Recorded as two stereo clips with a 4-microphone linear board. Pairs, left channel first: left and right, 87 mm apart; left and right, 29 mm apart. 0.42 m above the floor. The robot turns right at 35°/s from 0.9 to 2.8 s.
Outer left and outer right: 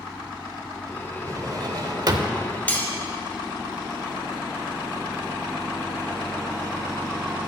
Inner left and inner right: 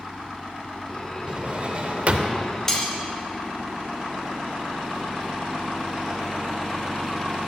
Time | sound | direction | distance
1.3 | a drawer | 125° right | 0.6 m
2.7 | cutlery clinking | 20° left (ahead or behind) | 1.2 m